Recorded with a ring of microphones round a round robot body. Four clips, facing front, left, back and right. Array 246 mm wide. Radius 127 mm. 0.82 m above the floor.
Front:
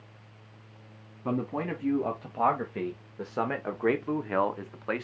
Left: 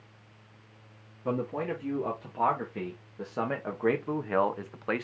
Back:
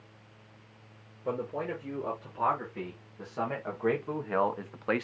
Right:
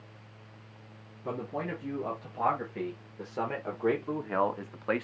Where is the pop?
No pop in this recording.